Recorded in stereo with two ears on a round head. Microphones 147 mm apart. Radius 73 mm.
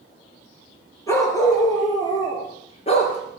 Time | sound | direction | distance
1.1 | a dog barking | 20° left (ahead or behind) | 5.5 m